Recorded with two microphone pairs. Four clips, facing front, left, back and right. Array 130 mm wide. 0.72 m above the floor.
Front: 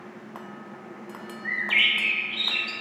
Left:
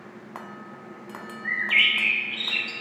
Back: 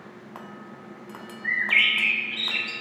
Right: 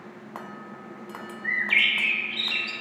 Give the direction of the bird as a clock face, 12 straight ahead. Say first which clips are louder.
Left 1 dB, back 2 dB; 4 o'clock.